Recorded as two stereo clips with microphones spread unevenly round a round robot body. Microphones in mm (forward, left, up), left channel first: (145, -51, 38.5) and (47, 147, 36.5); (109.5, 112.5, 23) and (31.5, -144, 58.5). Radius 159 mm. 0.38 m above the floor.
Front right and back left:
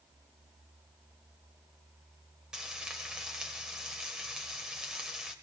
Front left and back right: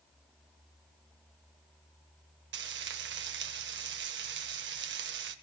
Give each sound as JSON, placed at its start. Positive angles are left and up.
{"t": 2.5, "sound": "frying", "azimuth_deg": -160, "distance_m": 1.0}